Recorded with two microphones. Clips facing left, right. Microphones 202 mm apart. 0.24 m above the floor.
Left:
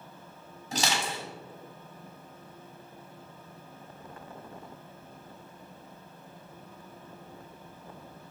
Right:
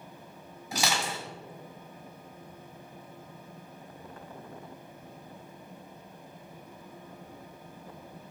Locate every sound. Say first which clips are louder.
0.7 s crushing: even; 10° right (ahead or behind), 1.5 m